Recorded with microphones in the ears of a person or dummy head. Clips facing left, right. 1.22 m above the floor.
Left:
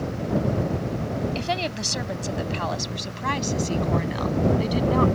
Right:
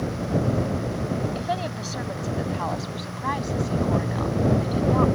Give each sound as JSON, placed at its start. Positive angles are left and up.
{"t": 1.4, "sound": "a woman speaking", "side_deg": 30}